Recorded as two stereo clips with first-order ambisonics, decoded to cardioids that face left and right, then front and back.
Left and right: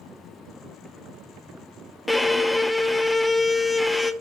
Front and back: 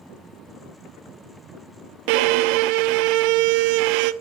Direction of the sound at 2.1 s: 175° left.